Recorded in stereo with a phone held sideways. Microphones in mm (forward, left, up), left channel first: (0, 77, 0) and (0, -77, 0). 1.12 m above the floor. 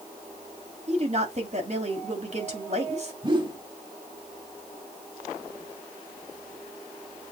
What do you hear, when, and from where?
0.9 s a woman speaking: 50° right (ahead or behind), 3 m
3.2 s a whoosh: 30° right (ahead or behind), 1.6 m